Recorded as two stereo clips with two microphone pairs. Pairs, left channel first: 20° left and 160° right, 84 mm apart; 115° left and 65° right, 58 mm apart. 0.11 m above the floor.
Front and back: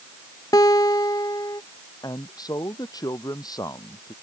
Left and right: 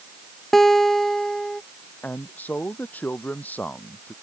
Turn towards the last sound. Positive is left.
turn(degrees=55)